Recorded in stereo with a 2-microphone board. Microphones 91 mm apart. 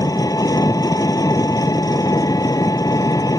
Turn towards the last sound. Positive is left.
turn(degrees=45)  # may be behind; listen again after turning